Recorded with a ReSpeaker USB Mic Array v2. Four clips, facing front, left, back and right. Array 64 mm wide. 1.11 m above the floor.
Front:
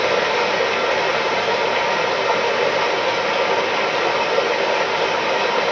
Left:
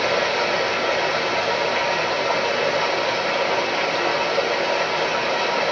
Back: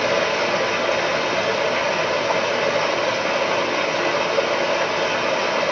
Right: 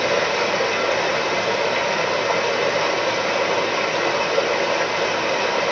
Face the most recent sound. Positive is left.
turn(degrees=-20)